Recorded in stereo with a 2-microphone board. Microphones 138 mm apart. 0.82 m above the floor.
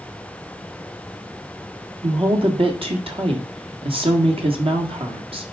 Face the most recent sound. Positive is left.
turn(degrees=-40)  # may be behind; listen again after turning